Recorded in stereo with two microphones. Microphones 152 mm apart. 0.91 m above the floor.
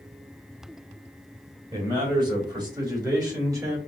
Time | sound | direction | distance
1.7 | a man speaking | 30° right (ahead or behind) | 3.5 m